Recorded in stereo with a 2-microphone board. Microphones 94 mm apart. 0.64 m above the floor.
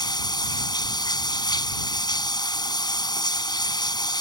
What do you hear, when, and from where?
0.0 s running water: 45° left (ahead or behind)